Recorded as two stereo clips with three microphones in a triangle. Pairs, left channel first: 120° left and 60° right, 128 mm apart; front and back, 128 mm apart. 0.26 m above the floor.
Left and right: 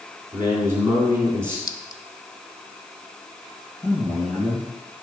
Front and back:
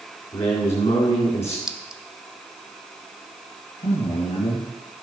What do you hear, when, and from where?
0.3 s a man speaking: 5° left, 2.5 m
1.7 s a clink: 100° left, 0.6 m
3.8 s a man speaking: 25° left, 3.5 m